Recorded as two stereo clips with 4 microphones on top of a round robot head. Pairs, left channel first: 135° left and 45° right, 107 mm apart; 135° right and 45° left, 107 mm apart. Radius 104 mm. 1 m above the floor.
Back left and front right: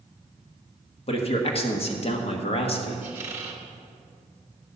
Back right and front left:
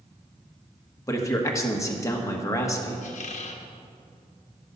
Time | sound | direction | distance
1.1 | a man speaking | 160° left | 1.4 m
3.0 | a squeak | 115° right | 0.7 m